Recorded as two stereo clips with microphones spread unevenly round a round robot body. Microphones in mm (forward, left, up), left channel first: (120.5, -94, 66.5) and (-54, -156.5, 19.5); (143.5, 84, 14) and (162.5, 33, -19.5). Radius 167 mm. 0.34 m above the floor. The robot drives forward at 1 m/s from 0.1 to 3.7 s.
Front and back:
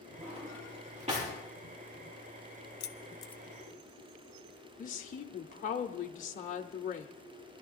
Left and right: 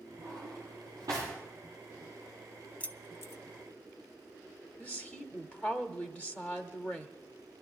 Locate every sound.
0.2 s a drawer: 100° right, 6 m; by 1.3 s 110° right, 6.5 m
2.8 s keys jangling: 15° left, 0.7 m; by 3.4 s 150° left, 0.5 m
4.8 s a woman speaking: 5° right, 0.9 m